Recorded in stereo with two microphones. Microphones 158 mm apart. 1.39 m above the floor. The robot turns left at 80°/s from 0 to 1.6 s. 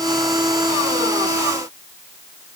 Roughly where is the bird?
No bird in this recording.